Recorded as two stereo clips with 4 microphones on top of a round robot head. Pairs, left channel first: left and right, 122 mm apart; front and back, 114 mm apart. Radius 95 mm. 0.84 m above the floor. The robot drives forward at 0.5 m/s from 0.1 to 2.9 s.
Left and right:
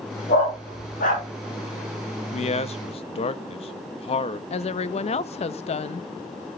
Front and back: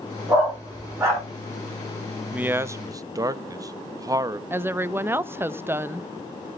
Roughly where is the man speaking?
Left.